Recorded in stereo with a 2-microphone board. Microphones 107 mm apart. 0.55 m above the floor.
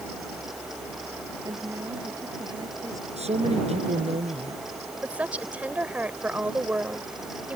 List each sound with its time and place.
1.4 s a woman speaking: 35° right (ahead or behind)
3.2 s a man speaking: 85° right
5.0 s a woman speaking: 15° right (ahead or behind)